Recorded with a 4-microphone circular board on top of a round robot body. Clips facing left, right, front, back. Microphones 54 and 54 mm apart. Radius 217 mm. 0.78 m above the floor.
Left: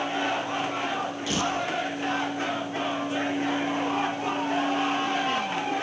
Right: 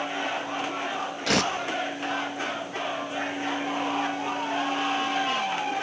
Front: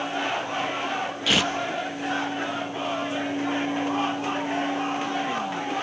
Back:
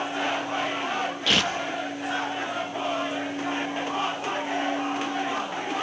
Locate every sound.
1.3 s tearing paper: 85° right, 1.6 m